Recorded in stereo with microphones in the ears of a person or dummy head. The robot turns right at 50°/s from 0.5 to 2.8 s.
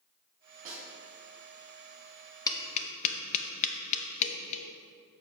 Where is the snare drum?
50° right (ahead or behind), 2.5 m; by 0.8 s 40° right (ahead or behind), 2.5 m.